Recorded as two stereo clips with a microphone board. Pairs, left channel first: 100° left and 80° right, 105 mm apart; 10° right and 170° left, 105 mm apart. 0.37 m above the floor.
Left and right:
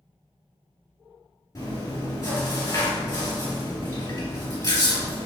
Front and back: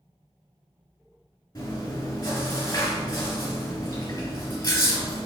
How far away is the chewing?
About 2.0 m.